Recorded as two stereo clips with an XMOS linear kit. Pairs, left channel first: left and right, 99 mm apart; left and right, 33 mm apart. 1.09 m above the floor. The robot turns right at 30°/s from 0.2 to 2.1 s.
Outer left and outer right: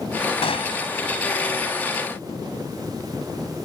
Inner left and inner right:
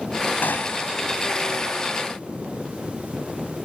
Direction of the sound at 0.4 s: 75° left (ahead or behind).